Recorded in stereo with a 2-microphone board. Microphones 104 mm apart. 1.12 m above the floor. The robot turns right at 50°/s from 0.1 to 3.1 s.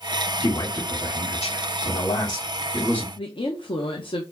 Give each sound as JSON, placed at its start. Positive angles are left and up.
{"t": 0.4, "sound": "a man speaking", "azimuth_deg": 30, "distance_m": 2.0}
{"t": 3.2, "sound": "a woman speaking", "side_deg": 55, "distance_m": 0.9}